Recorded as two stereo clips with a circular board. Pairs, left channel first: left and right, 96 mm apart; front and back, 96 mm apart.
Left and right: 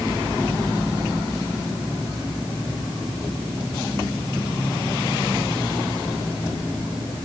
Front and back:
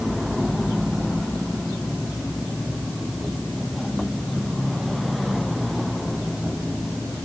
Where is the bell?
I don't hear a bell.